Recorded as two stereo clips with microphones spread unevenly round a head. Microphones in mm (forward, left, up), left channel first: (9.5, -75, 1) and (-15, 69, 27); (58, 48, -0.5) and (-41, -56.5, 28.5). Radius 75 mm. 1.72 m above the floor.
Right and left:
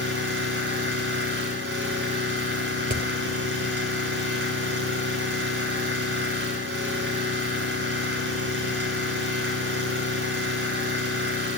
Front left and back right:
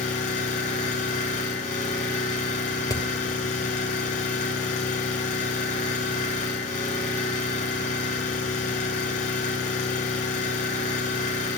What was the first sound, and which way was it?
An engine running, 90° left.